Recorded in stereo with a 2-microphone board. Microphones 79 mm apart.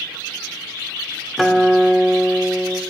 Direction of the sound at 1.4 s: Centre (ahead or behind).